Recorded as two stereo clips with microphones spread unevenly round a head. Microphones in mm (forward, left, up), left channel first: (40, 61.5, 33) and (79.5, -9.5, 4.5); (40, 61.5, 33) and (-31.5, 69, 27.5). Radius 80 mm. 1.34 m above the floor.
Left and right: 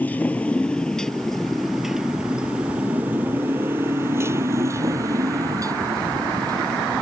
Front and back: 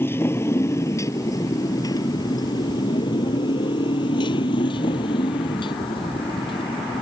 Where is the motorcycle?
50° left; by 7.0 s 20° right.